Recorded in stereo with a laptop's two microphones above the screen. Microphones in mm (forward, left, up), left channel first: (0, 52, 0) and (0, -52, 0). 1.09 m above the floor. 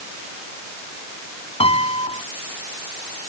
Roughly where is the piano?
Left.